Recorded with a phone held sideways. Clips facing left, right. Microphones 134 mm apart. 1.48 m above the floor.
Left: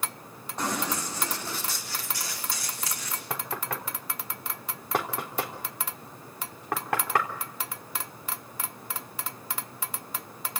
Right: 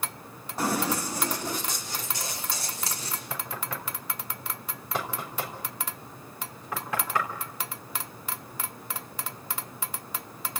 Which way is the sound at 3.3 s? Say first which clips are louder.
Left 4 dB; 60° left (ahead or behind).